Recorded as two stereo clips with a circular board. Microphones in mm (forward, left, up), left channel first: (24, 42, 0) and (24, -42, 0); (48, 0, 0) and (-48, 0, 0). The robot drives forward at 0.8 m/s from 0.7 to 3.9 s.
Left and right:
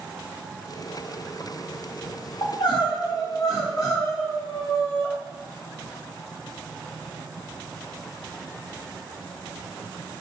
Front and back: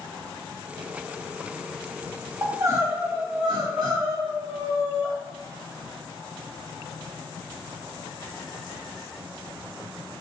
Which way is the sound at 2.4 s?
115° left.